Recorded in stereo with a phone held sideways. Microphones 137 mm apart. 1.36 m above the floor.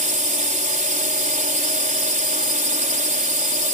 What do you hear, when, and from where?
0.0 s a drone: 70° right (ahead or behind)